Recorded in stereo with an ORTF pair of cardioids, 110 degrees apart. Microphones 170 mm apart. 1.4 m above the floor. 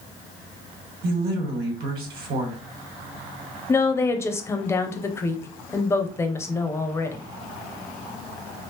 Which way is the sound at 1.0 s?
70° right.